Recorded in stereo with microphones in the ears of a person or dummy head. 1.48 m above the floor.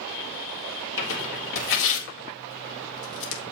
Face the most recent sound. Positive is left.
turn(degrees=75)  # may be behind; listen again after turning